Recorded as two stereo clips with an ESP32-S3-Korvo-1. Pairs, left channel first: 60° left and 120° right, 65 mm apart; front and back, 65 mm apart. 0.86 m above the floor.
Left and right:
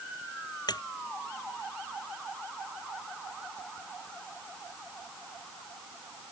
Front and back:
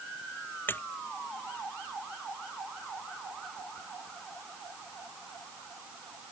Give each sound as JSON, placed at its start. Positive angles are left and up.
{"t": 0.7, "sound": "a splash", "azimuth_deg": 60}